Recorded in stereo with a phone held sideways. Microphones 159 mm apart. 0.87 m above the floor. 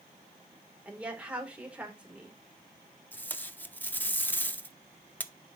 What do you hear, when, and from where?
0.8 s a woman speaking: 10° right (ahead or behind), 2.5 m
3.1 s tape being pulled: 10° left (ahead or behind), 0.7 m